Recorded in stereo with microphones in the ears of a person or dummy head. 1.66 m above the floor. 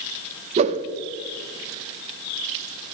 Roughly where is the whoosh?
Right.